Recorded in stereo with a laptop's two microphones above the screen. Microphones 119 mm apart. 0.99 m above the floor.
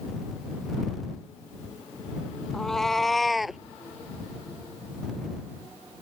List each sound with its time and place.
2.5 s a cat meowing: 5° left (ahead or behind); by 3.6 s 5° right (ahead or behind)